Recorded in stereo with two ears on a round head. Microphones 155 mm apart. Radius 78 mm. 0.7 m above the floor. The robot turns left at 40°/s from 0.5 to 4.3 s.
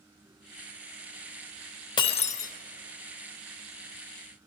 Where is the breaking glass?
25° left (ahead or behind), 1.0 m; by 2.5 s 50° left (ahead or behind), 1.0 m.